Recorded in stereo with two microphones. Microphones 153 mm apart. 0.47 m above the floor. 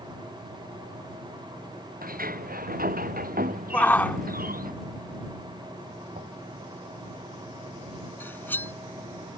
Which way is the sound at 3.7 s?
10° left (ahead or behind).